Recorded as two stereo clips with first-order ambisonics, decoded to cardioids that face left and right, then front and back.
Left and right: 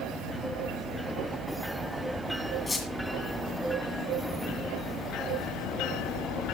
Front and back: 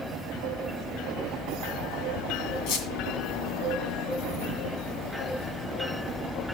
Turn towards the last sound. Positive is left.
turn(degrees=15)